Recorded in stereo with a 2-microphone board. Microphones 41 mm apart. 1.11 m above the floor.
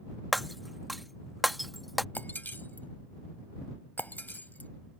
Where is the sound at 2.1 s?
50° left (ahead or behind).